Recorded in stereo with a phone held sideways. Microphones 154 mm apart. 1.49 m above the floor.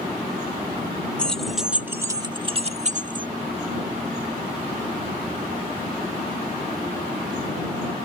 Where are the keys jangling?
5° left (ahead or behind); by 3.3 s 60° right (ahead or behind).